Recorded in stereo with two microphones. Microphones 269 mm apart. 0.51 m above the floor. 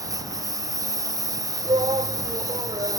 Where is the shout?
20° right (ahead or behind).